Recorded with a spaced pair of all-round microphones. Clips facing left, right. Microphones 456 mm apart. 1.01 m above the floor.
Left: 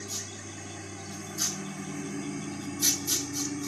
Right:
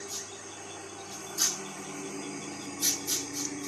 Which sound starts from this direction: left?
A lawn mower, at 0.0 s.